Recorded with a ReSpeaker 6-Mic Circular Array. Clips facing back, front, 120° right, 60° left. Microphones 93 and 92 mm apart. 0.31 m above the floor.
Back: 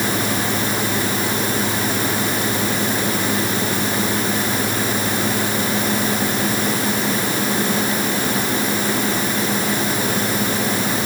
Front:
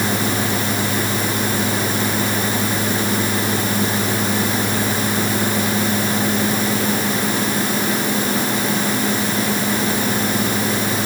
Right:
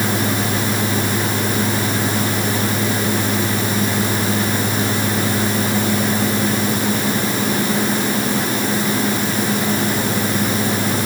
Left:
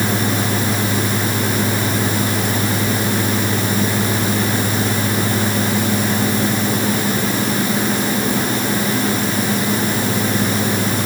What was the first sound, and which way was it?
Only background noise.